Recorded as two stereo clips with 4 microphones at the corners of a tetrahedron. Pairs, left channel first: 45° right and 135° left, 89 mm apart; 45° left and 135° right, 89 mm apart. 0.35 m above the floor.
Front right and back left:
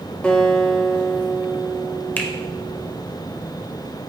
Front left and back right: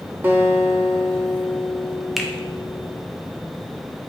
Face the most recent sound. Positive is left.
turn(degrees=-45)